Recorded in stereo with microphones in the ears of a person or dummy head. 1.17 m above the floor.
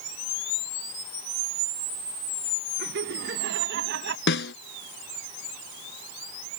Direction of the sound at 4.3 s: 60° left (ahead or behind).